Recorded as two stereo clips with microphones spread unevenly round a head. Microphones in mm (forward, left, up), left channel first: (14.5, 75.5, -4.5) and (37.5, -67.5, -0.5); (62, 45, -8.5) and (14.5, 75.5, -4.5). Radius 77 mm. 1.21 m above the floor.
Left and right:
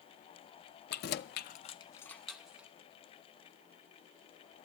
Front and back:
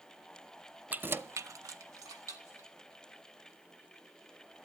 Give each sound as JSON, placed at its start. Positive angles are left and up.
{"t": 0.9, "sound": "keys jangling", "azimuth_deg": 90, "distance_m": 0.7}